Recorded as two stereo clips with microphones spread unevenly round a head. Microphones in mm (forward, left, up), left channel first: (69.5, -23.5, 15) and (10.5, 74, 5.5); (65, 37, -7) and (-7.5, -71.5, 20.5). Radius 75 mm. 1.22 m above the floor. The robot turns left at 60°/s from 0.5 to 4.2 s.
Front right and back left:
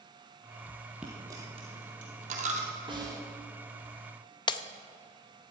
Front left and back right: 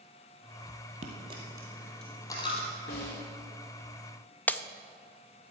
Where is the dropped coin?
155° right, 2.5 m; by 2.7 s 105° left, 2.5 m.